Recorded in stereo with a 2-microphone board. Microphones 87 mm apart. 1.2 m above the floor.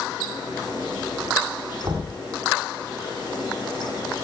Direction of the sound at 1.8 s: 50° right (ahead or behind).